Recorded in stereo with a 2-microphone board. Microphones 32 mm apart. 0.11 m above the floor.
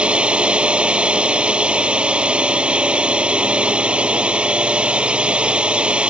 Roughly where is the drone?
Right.